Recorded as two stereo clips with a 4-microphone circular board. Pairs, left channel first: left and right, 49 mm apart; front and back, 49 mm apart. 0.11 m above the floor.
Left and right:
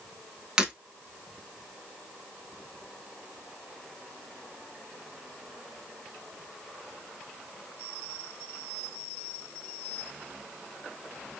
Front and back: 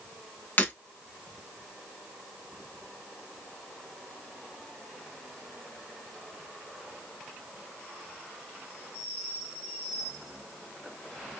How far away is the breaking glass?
About 1.0 m.